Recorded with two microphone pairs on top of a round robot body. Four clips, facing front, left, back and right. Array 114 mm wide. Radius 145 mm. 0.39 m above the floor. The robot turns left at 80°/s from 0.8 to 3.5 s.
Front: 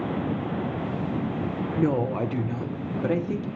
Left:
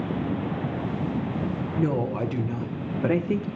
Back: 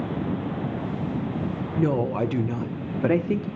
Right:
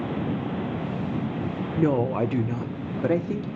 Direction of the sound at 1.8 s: 75° right.